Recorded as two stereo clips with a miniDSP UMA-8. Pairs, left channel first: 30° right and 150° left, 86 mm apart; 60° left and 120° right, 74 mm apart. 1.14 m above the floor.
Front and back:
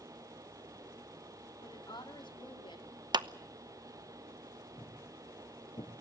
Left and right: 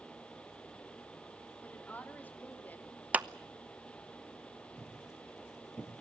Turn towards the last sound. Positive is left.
turn(degrees=-25)